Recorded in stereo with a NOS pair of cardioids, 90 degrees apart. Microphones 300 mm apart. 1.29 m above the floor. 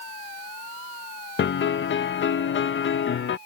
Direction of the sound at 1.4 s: 45° left.